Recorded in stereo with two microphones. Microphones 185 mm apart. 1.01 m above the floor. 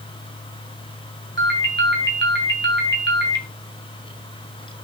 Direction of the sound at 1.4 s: 80° right.